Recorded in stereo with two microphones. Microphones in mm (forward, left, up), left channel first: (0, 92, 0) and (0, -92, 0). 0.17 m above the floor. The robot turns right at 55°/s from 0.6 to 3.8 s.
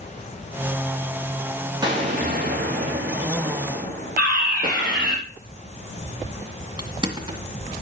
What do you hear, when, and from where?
1.8 s an explosion: 155° right, 5 m; by 5.2 s 50° right, 5 m
4.2 s a fire alarm: 55° right (ahead or behind), 8.5 m
6.8 s crushing: 25° right (ahead or behind), 1.8 m